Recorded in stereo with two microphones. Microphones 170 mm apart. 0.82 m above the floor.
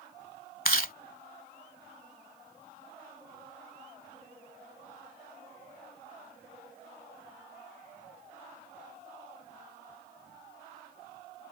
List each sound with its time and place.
0.7 s chewing: 60° left (ahead or behind)